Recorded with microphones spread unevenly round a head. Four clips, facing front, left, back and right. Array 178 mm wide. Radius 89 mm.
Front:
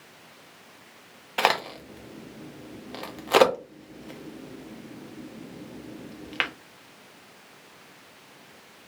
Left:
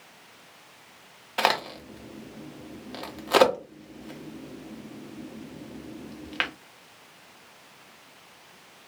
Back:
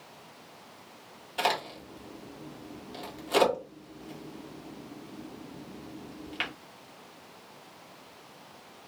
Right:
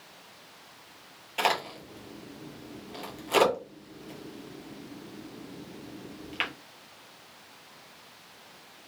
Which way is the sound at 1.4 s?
40° left.